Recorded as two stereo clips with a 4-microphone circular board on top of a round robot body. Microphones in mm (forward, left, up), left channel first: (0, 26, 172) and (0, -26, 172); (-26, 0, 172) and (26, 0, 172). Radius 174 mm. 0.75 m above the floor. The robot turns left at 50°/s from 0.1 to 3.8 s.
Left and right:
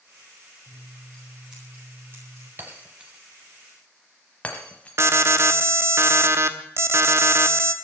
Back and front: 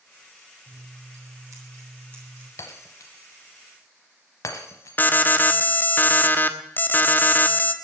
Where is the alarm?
125° right, 1.2 m.